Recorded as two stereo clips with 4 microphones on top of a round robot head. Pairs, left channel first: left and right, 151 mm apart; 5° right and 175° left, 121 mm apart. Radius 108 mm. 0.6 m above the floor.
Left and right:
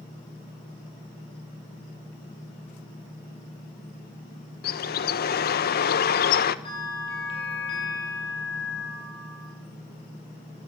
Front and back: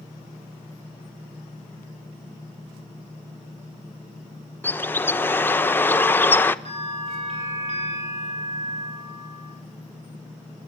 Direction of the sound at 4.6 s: 70° left.